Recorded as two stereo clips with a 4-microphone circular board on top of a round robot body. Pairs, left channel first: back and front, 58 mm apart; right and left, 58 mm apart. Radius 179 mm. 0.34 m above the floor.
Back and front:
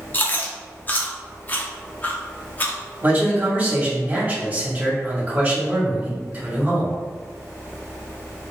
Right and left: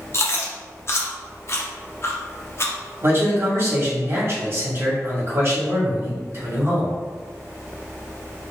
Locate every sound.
0.1 s chewing: 125° right, 0.8 m
3.0 s a man speaking: 60° left, 1.6 m